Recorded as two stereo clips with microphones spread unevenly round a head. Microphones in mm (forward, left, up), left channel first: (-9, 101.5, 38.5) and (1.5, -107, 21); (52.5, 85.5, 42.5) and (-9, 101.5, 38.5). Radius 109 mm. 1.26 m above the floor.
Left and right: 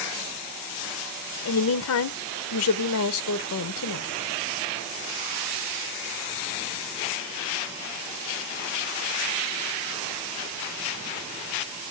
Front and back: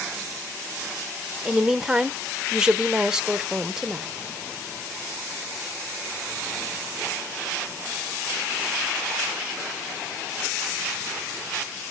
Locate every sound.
1.4 s a woman speaking: 85° left, 1.1 m